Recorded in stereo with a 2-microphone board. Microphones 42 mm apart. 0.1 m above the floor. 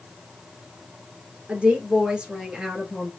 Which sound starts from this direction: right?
A woman speaking, at 1.5 s.